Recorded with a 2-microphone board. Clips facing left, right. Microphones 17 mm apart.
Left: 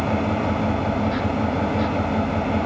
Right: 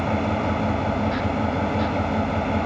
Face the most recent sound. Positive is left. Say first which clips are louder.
# left 1 dB
turn(degrees=0)  # may be behind; listen again after turning